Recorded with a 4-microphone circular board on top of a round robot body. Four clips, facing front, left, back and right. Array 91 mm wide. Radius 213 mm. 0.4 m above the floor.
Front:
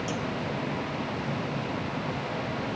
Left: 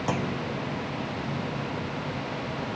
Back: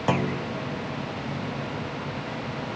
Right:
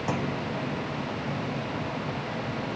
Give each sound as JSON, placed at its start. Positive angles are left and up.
{"t": 0.1, "sound": "a clunk", "azimuth_deg": 175}